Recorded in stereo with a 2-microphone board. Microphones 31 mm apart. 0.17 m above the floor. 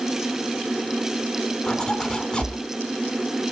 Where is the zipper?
25° left (ahead or behind), 1.1 m.